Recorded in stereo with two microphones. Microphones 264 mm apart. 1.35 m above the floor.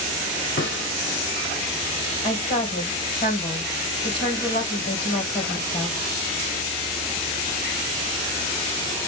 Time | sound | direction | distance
0.6 | a snare drum | 45° left (ahead or behind) | 1.8 m
2.2 | a woman speaking | 40° left (ahead or behind) | 1.8 m